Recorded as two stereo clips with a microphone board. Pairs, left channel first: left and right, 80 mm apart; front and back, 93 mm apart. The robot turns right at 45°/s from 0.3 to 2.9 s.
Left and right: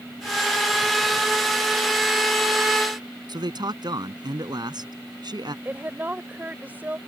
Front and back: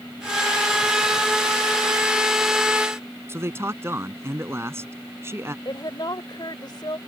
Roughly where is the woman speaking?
Ahead right.